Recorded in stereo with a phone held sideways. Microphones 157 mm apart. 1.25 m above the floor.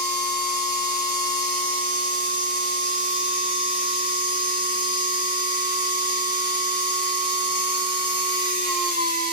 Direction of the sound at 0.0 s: 30° right (ahead or behind).